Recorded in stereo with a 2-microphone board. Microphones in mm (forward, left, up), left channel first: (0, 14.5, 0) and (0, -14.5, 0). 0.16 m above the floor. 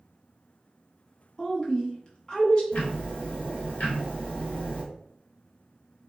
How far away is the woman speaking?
About 1.1 m.